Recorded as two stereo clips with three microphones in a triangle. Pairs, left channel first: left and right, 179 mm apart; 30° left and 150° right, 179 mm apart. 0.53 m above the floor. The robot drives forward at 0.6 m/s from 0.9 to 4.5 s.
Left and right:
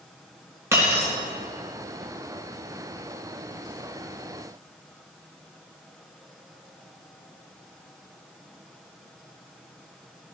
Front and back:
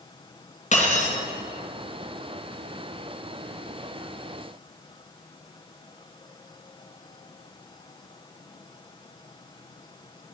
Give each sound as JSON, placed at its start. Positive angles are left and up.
{"t": 0.7, "sound": "breaking glass", "azimuth_deg": -15, "distance_m": 3.5}